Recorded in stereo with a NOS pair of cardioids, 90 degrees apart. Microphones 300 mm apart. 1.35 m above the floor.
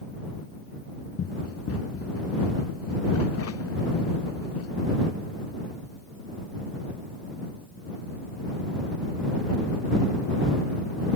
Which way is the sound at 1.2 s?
50° left.